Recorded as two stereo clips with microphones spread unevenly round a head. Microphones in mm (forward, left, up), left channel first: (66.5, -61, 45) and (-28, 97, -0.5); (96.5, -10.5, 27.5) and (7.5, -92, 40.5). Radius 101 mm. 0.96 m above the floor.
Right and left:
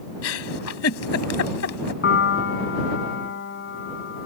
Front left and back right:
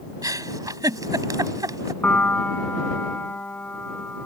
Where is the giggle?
80° right.